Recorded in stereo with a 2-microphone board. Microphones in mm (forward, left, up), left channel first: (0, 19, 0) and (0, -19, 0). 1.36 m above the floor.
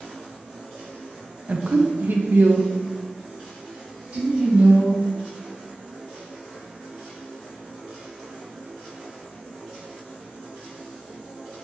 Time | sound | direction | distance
1.5 | a woman speaking | 35° right (ahead or behind) | 0.6 m